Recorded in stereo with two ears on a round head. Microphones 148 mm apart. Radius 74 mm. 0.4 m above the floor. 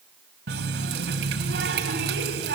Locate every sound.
0.5 s a running tap: 70° right (ahead or behind), 3 m